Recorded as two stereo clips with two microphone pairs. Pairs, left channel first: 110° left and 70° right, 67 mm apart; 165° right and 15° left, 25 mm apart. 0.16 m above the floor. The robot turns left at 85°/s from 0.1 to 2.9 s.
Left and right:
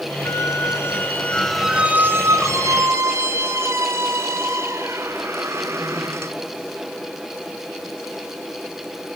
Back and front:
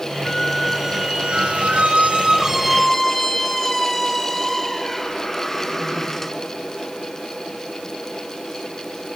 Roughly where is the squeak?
Behind left.